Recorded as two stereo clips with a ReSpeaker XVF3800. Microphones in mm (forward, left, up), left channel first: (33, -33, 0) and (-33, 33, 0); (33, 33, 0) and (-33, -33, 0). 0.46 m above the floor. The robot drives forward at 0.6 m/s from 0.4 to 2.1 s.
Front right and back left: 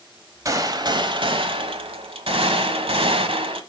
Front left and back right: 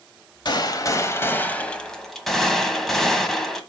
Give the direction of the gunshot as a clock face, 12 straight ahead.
9 o'clock.